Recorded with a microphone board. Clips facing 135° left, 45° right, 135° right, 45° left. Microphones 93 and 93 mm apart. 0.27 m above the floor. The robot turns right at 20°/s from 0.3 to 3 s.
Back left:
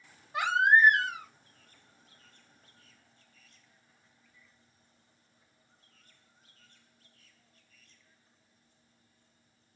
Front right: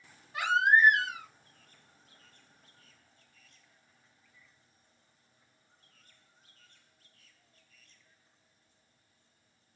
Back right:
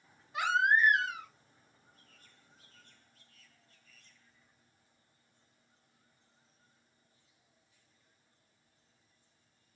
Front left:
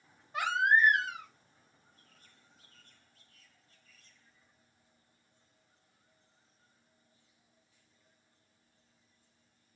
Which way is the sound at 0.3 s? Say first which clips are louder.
Back left 1 dB, even; 75° left.